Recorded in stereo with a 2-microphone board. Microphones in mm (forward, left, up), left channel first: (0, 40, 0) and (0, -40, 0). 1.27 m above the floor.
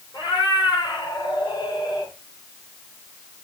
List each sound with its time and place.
0.1 s a cat meowing: 65° left (ahead or behind), 5.5 m; by 2.1 s 55° left (ahead or behind), 4 m